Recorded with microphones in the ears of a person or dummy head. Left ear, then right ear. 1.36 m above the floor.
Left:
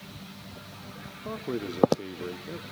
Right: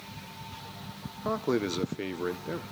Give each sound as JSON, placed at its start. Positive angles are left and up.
{"t": 1.2, "sound": "a man speaking", "side_deg": -55, "distance_m": 0.7}